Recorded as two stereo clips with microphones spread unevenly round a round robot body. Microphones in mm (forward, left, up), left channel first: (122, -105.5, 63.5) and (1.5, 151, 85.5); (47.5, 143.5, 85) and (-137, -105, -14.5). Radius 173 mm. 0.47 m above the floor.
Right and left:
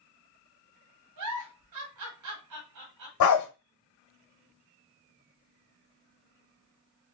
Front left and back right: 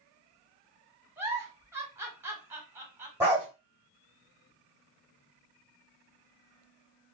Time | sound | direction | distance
1.2 | a giggle | 150° left | 1.1 m
3.2 | a dog barking | 45° right | 1.1 m